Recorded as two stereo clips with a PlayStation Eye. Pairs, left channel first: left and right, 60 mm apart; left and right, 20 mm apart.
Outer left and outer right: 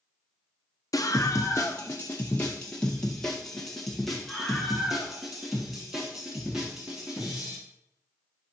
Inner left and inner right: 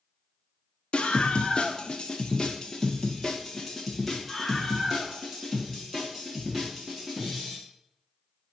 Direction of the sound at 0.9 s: 60° left (ahead or behind).